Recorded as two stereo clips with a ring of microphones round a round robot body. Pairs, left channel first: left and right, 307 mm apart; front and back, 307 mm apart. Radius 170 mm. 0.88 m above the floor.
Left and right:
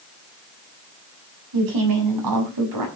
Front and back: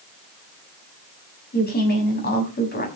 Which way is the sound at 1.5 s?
60° right.